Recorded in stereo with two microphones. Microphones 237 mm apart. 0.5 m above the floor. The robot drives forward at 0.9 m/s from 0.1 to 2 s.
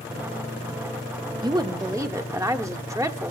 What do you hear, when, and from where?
1.4 s a woman speaking: 20° right (ahead or behind), 0.7 m; by 3.3 s 15° right (ahead or behind), 0.9 m